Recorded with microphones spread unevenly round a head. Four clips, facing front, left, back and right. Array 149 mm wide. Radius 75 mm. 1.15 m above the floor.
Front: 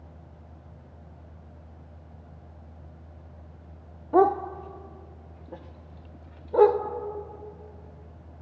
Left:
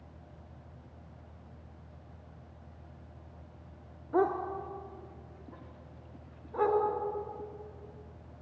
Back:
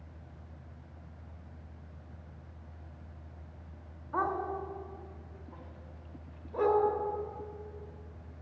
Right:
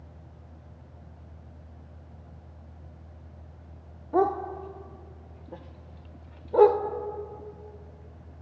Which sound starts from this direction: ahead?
A dog barking, at 4.1 s.